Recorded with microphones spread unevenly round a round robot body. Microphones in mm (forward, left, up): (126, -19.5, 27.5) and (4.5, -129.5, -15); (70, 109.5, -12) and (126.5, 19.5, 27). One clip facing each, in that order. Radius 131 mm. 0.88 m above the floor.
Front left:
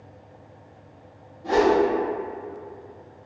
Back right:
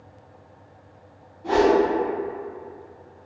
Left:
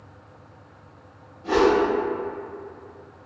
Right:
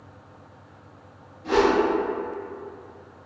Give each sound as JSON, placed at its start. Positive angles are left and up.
{"t": 1.4, "sound": "a whoosh", "azimuth_deg": 140, "distance_m": 1.3}